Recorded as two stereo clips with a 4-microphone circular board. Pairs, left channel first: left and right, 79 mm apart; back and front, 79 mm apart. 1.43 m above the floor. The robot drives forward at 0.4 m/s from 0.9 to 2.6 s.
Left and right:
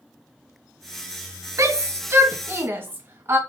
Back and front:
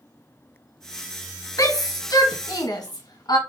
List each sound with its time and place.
1.6 s a shout: 140° right, 1.1 m; by 3.4 s 150° right, 1.4 m